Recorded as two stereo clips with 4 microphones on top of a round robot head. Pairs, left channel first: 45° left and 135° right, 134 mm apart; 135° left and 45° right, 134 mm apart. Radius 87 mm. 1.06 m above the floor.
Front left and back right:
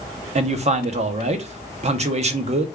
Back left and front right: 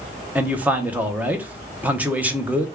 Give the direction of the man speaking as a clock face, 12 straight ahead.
4 o'clock.